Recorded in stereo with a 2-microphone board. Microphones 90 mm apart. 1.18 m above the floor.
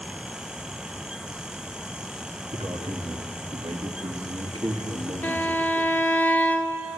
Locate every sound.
2.5 s a man speaking: 80° right, 3 m; by 6.2 s 50° right (ahead or behind), 3 m
5.2 s a violin: 15° left (ahead or behind), 1.2 m